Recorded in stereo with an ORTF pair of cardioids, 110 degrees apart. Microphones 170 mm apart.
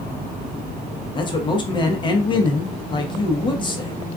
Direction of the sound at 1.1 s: 30° left.